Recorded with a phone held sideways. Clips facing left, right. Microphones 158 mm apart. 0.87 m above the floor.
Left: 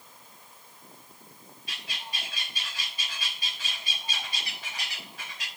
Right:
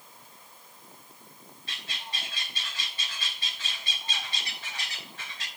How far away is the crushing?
No crushing in this recording.